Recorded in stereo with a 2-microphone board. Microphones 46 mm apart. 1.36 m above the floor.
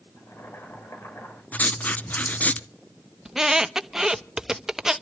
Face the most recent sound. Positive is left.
turn(degrees=-10)  # may be behind; listen again after turning